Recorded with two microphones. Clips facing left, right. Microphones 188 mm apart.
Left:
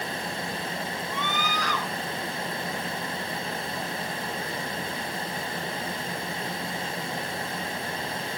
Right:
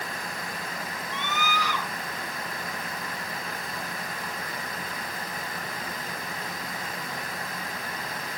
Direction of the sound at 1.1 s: 5° right (ahead or behind).